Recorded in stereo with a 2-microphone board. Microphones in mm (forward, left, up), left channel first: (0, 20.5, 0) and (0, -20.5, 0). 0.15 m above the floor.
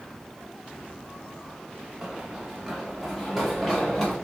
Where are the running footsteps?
15° right (ahead or behind), 1.0 m; by 4.1 s 10° left (ahead or behind), 2 m.